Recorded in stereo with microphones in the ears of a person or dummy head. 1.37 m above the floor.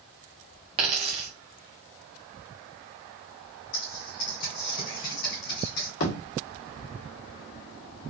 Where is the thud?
70° left (ahead or behind), 1.8 m.